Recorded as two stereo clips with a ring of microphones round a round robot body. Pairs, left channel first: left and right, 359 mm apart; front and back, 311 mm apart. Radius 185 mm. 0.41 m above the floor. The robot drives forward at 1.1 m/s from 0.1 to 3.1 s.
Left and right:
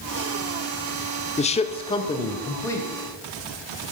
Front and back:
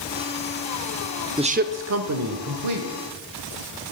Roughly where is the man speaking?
Behind left.